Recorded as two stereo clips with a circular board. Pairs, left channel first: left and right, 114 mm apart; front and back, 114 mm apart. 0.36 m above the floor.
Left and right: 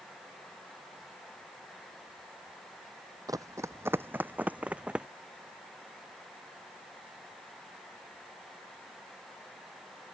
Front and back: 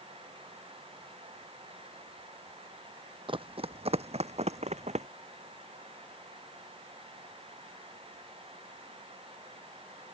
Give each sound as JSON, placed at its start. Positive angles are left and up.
{"t": 3.3, "sound": "running footsteps", "azimuth_deg": -145}